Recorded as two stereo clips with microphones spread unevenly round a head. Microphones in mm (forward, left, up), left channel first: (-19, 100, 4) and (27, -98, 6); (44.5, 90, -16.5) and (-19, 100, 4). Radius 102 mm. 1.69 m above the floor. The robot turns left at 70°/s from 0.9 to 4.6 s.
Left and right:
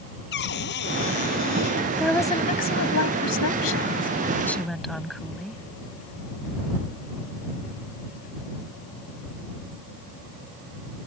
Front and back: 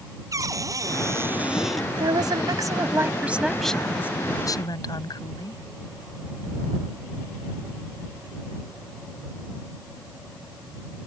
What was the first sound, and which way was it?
A cupboard door, 145° left.